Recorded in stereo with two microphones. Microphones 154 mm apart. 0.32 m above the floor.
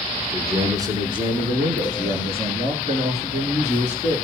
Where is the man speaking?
15° right (ahead or behind), 3.5 m; by 4.2 s 50° right (ahead or behind), 6.5 m.